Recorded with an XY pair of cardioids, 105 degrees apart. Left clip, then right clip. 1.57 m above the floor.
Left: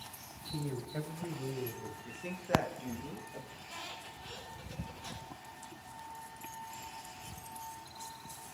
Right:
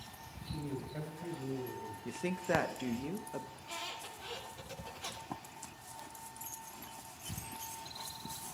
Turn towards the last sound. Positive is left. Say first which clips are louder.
# right 2 dB
turn(degrees=-70)